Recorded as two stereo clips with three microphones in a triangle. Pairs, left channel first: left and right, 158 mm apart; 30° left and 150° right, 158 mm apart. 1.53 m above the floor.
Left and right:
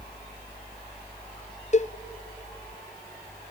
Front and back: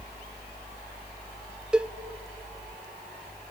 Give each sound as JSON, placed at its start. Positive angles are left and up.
{"t": 1.7, "sound": "a cowbell", "azimuth_deg": 125, "distance_m": 0.5}